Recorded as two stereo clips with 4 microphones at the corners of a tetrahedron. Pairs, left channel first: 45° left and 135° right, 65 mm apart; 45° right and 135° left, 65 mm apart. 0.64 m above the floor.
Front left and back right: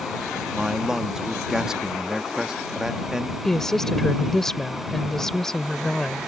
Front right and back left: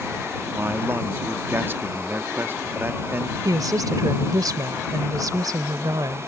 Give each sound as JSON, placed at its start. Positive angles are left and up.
{"t": 0.5, "sound": "a man speaking", "azimuth_deg": 150}
{"t": 3.5, "sound": "a woman speaking", "azimuth_deg": 130}